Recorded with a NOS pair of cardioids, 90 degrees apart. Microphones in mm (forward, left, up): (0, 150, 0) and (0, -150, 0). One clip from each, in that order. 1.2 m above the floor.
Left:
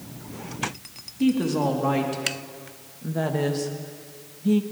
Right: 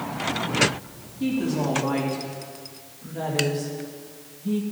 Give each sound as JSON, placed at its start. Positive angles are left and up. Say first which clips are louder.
{"t": 1.2, "sound": "a woman speaking", "louder": "left 3 dB", "azimuth_deg": 40, "distance_m": 3.0}